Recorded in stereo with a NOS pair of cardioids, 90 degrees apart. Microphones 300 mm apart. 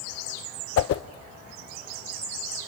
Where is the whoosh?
50° left, 0.5 m.